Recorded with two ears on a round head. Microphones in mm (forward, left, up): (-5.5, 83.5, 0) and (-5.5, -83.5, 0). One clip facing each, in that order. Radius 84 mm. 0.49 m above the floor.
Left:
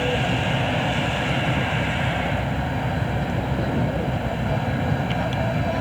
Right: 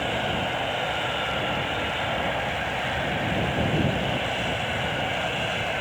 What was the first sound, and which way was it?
An aircraft, 65° left (ahead or behind).